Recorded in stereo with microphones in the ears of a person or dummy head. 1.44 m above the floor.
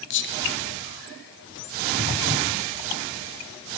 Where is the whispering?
60° left (ahead or behind), 0.8 m.